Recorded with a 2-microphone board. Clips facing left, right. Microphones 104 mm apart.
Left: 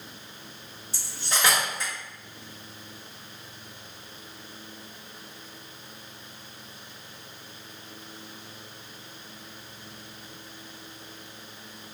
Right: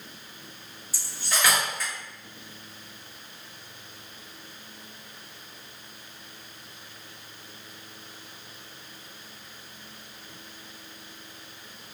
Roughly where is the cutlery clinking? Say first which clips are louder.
Even; left.